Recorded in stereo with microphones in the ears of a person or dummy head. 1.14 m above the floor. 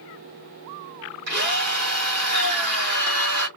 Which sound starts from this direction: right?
A drill, at 1.3 s.